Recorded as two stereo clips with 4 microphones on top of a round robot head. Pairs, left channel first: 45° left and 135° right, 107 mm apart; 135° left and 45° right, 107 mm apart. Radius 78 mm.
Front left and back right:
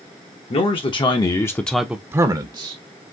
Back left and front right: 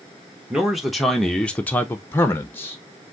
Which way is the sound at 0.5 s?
45° left.